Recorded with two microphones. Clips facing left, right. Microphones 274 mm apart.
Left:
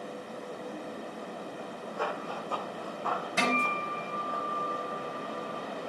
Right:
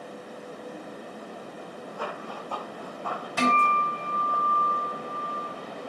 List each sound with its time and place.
2.0 s running footsteps: 20° left (ahead or behind), 4 m; by 4.4 s 10° left (ahead or behind), 4.5 m
3.4 s a guitar: 20° left (ahead or behind), 5.5 m